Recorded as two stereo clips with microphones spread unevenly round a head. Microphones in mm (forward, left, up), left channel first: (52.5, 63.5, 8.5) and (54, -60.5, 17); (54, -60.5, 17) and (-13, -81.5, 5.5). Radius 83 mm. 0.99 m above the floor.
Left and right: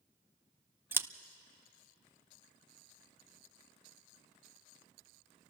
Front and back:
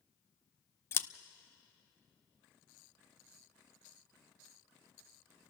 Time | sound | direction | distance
0.9 | scissors | 25° right | 0.6 m